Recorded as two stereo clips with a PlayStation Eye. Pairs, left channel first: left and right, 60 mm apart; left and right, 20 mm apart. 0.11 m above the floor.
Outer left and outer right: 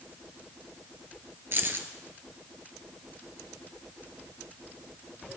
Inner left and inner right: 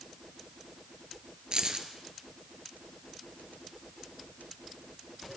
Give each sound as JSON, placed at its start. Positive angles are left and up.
{"t": 1.5, "sound": "keys jangling", "side_deg": -40, "distance_m": 1.4}